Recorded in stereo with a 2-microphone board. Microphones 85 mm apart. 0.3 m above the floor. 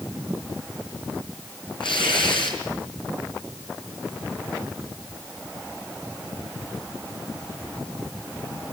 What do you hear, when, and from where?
1.8 s tearing paper: 70° left (ahead or behind), 4.5 m